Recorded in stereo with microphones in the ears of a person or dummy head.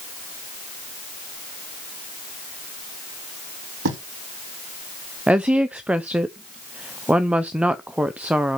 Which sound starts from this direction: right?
Writing, at 3.9 s.